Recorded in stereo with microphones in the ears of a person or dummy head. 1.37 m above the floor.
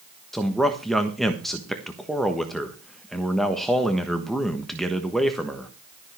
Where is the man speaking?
Centre (ahead or behind), 1.3 m.